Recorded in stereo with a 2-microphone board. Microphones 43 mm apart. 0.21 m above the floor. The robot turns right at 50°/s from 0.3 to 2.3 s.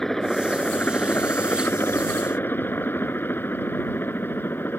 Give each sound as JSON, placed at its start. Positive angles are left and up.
{"t": 0.0, "sound": "a helicopter", "side_deg": 10}